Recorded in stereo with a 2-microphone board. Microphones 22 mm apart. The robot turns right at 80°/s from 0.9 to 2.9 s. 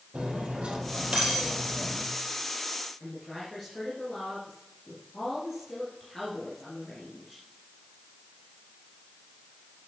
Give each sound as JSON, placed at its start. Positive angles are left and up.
{"t": 0.1, "sound": "cutlery clinking", "azimuth_deg": -75, "distance_m": 4.0}
{"t": 3.0, "sound": "a woman speaking", "side_deg": 15, "distance_m": 3.0}